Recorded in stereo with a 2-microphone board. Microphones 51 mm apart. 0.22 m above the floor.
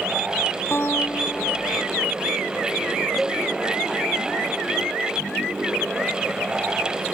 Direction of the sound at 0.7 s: 50° left (ahead or behind).